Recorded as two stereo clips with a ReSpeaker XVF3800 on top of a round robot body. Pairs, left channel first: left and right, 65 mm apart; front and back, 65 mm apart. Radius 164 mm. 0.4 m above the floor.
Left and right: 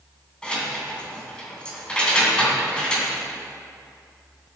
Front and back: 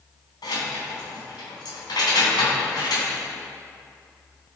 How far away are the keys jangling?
About 3 m.